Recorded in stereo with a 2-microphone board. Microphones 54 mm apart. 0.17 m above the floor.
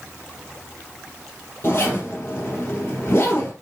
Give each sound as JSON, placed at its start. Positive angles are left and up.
{"t": 1.6, "sound": "a zipper", "side_deg": 40, "distance_m": 4.0}